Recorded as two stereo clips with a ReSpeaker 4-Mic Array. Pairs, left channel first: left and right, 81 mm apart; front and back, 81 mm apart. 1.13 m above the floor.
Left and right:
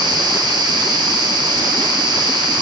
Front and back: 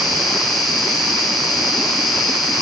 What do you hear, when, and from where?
0.0 s an insect: 90° right, 1.0 m